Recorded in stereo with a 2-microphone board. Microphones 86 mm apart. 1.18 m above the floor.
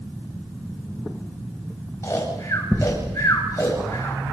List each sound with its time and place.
2.0 s snoring: 35° left (ahead or behind), 8.5 m